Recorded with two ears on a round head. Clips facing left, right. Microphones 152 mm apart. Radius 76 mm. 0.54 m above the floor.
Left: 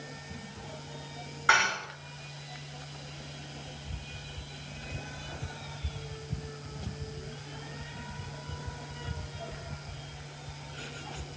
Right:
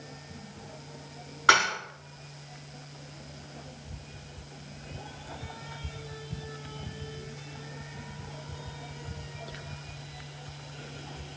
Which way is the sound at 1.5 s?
85° right.